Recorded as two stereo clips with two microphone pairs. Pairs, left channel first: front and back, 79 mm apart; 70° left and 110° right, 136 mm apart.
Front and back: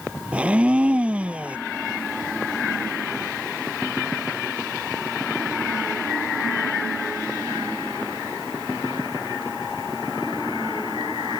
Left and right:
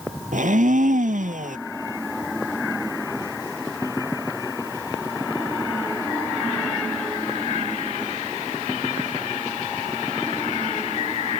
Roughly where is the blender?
Right.